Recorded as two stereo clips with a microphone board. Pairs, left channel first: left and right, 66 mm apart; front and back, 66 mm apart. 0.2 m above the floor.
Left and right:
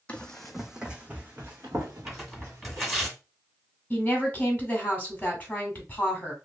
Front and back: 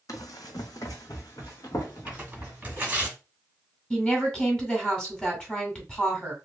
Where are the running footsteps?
20° left, 0.7 m; by 3.1 s 50° right, 1.9 m.